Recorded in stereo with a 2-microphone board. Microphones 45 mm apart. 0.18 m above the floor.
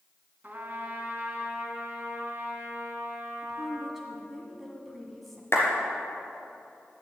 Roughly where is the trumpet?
Right.